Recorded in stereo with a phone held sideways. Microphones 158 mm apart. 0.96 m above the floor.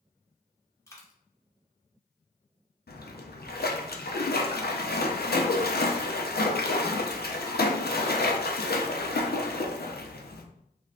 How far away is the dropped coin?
About 0.8 m.